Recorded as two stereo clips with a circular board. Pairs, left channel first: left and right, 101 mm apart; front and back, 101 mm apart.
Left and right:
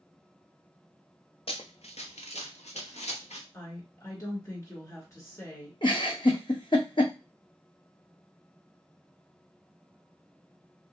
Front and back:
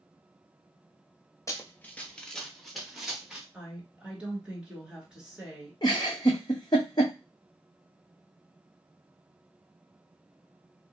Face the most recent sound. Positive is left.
turn(degrees=50)